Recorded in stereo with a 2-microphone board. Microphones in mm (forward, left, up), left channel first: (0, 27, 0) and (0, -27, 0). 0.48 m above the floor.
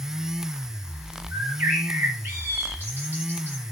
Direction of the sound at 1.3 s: 40° right (ahead or behind).